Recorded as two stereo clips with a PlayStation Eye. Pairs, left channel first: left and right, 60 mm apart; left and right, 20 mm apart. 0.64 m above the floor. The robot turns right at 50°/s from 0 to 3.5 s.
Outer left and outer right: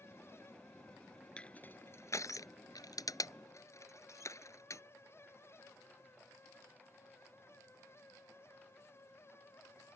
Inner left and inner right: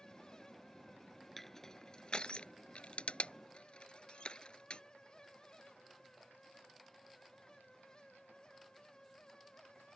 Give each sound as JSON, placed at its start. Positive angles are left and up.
{"t": 1.4, "sound": "crushing", "side_deg": 15}